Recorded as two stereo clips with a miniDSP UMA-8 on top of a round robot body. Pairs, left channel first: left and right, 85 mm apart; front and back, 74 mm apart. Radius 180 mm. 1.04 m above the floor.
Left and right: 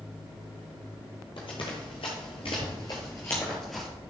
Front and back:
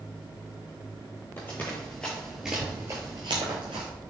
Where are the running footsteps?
65° left, 1.5 m; by 3.9 s straight behind, 1.3 m.